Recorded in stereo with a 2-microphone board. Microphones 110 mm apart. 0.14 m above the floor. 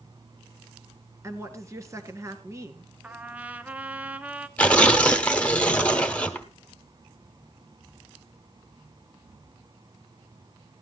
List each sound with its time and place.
1.2 s a woman speaking: 25° right (ahead or behind), 1.7 m
3.0 s a trumpet: 15° right (ahead or behind), 0.8 m
4.6 s tearing paper: 10° left (ahead or behind), 1.0 m